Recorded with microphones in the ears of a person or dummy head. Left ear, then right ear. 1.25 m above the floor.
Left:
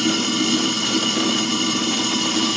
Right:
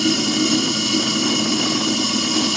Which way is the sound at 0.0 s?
35° right (ahead or behind).